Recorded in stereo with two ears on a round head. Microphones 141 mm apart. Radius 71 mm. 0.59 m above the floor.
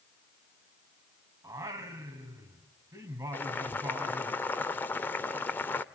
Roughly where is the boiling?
Centre.